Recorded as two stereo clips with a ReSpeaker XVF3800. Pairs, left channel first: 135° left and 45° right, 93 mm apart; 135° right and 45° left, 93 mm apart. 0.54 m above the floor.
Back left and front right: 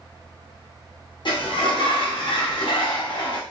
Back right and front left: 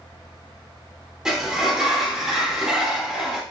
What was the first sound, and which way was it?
A sliding door, 125° left.